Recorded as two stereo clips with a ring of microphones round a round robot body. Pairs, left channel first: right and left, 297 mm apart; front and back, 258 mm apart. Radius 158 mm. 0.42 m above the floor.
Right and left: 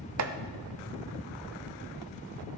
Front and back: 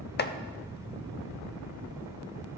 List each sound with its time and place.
0.2 s chopping: 55° left, 0.7 m